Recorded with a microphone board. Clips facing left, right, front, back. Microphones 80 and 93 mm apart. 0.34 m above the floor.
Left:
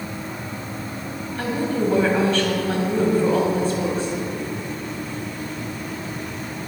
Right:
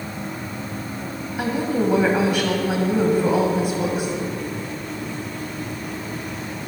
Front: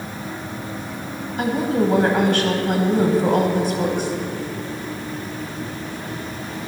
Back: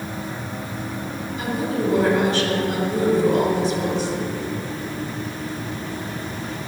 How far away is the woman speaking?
About 1.9 m.